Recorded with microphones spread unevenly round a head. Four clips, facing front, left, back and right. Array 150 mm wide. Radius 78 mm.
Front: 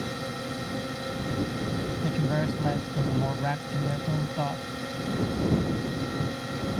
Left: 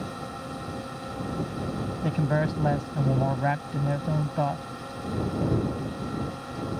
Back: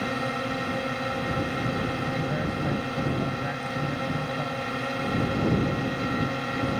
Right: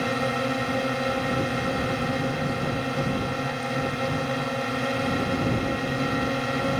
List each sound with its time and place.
0.0 s a drone: 100° right
2.0 s a man speaking: 85° left